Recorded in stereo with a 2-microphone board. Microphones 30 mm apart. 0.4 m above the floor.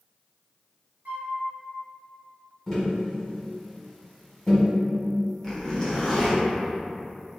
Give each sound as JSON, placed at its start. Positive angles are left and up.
{"t": 1.1, "sound": "a flute", "side_deg": -70, "distance_m": 0.6}
{"t": 2.7, "sound": "tapping", "side_deg": 15, "distance_m": 1.5}
{"t": 5.4, "sound": "a zipper", "side_deg": 15, "distance_m": 1.0}